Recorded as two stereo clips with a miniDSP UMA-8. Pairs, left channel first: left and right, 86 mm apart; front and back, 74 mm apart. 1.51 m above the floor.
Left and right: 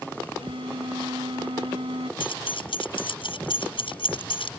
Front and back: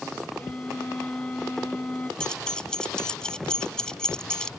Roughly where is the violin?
Right.